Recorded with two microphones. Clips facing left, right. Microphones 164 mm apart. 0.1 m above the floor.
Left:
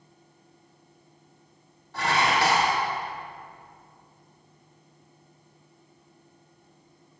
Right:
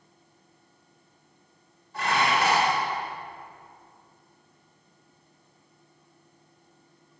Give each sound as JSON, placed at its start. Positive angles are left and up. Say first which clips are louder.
{"t": 1.9, "sound": "dishes clattering", "louder": "left 1 dB", "side_deg": 75, "distance_m": 2.5}